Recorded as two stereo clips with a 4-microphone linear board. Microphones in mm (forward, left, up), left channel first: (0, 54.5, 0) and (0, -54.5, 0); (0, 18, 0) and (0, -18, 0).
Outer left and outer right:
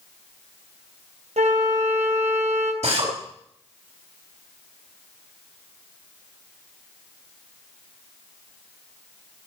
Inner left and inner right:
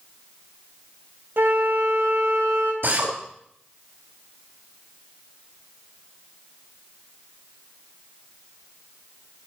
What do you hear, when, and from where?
1.4 s a flute: 75° right (ahead or behind), 2.5 m
2.8 s a drill: 65° right (ahead or behind), 5 m